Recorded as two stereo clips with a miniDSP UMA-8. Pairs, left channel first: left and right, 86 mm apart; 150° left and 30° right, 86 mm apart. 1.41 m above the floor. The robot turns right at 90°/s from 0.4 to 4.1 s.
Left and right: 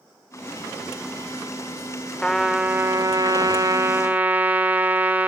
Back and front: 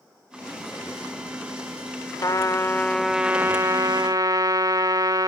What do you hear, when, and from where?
2.2 s a trumpet: 165° left, 1.4 m; by 5.3 s 25° right, 1.4 m